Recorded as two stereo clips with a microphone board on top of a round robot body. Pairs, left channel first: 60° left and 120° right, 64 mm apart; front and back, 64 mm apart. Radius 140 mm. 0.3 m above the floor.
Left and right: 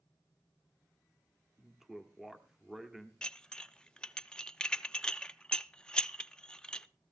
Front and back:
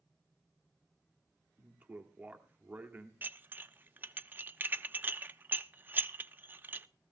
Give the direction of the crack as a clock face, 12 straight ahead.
I don't hear a crack.